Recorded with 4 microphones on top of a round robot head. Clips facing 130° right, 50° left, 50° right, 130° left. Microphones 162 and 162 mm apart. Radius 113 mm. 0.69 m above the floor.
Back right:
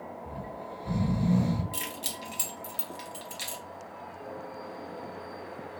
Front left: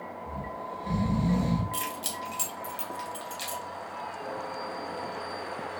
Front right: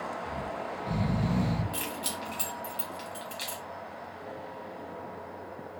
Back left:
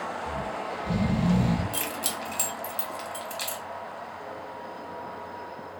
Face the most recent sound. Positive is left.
turn(degrees=155)